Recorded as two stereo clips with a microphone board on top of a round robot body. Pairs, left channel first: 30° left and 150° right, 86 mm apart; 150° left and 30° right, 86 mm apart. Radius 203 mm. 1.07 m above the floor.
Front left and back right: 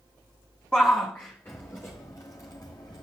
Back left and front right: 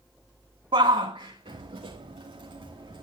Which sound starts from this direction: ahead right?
A shout, at 0.7 s.